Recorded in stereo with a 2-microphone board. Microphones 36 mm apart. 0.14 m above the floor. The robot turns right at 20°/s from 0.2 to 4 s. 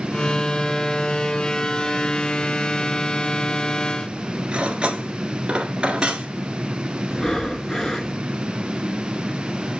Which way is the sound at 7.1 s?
20° left (ahead or behind).